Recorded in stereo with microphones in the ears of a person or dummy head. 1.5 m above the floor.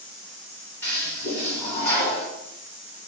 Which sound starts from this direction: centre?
A toilet flushing, at 0.8 s.